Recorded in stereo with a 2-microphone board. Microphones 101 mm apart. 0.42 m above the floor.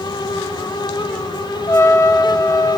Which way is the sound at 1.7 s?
30° left (ahead or behind).